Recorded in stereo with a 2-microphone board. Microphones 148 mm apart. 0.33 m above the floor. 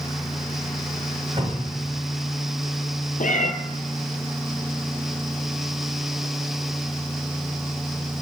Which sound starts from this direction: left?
A cat meowing, at 3.2 s.